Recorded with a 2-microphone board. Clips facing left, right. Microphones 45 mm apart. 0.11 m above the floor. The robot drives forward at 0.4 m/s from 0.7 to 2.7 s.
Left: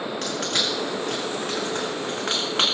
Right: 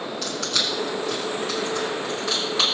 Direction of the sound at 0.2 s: 65° left (ahead or behind).